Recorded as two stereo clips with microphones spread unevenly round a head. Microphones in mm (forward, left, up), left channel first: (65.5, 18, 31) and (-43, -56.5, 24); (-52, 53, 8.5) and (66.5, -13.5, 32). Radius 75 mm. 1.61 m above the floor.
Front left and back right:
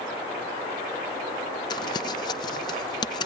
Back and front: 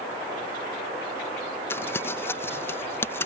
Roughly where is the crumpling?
Left.